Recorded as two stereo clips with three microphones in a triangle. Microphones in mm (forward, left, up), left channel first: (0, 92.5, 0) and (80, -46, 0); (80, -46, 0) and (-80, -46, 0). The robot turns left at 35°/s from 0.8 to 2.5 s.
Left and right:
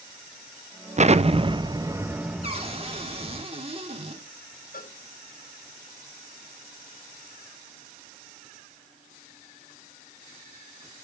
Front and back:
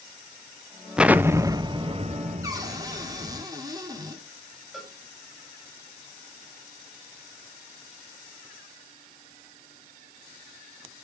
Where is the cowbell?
90° left, 4.5 m.